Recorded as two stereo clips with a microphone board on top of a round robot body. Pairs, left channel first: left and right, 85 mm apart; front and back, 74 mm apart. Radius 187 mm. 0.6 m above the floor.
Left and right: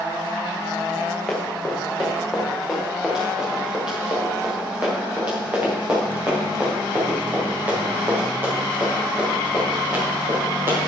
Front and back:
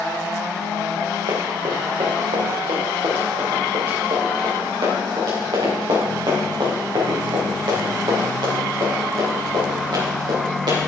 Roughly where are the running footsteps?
Behind.